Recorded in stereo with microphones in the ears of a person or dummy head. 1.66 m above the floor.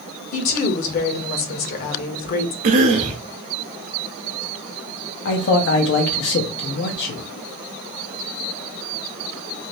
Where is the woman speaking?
50° left (ahead or behind), 0.9 m.